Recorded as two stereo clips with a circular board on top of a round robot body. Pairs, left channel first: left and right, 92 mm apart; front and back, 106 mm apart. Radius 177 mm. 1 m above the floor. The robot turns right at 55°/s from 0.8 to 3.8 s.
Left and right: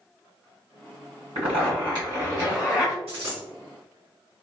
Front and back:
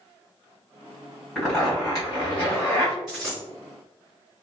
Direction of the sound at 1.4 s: 90° right.